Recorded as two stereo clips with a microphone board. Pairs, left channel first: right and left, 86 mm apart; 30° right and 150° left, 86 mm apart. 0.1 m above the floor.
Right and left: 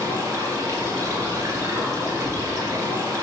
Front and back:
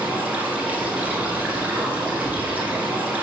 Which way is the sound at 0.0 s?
90° left.